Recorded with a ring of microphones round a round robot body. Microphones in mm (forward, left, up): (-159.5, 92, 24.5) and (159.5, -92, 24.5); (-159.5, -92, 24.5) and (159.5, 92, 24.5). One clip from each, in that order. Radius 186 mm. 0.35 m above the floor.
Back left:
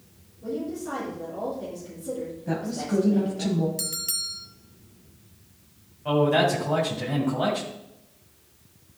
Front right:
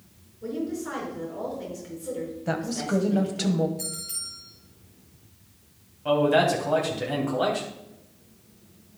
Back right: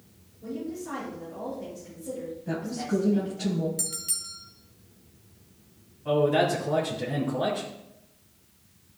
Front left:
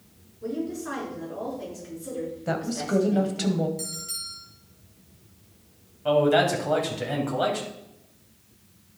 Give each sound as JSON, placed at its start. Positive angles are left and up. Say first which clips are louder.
{"t": 0.4, "sound": "a woman speaking", "louder": "even, front left 4 dB", "azimuth_deg": 5, "distance_m": 5.0}
{"t": 2.5, "sound": "a woman speaking", "louder": "front right 2 dB, front left 3 dB", "azimuth_deg": 15, "distance_m": 1.7}
{"t": 3.8, "sound": "a bell", "louder": "back left 5 dB, back right 1 dB", "azimuth_deg": 145, "distance_m": 2.0}
{"t": 6.0, "sound": "a man speaking", "louder": "front right 1 dB, front left 3 dB", "azimuth_deg": 45, "distance_m": 3.0}